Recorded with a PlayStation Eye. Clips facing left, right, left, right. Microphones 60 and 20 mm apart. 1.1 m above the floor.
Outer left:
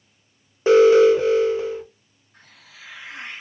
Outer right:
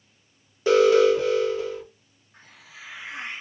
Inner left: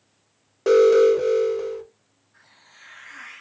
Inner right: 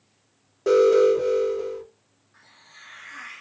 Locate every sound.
0.7 s an alarm: 30° left (ahead or behind), 0.7 m
2.3 s a hiss: 20° right (ahead or behind), 0.9 m